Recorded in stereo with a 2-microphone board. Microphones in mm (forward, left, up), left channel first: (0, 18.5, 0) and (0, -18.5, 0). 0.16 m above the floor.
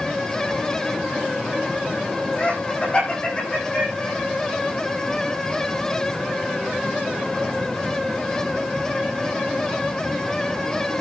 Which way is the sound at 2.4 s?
35° left (ahead or behind).